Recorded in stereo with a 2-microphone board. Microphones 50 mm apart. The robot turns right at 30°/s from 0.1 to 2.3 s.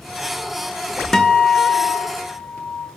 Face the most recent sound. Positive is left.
turn(degrees=50)